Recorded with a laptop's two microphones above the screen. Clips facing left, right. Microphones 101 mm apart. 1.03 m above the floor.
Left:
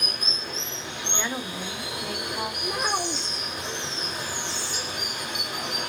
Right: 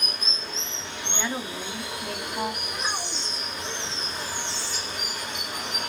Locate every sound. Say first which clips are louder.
0.0 s running water: left 1 dB; 55° left (ahead or behind), 1.8 m
1.1 s a woman speaking: right 1 dB; centre (ahead or behind), 0.8 m
2.6 s a child speaking: left 5 dB; 55° left (ahead or behind), 0.5 m